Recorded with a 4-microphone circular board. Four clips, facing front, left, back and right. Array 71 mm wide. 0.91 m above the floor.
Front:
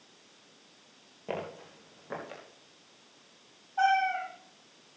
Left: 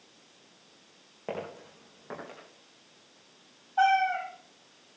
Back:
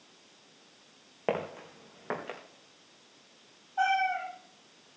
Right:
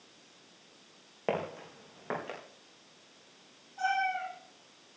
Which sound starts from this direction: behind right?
Footsteps, at 1.3 s.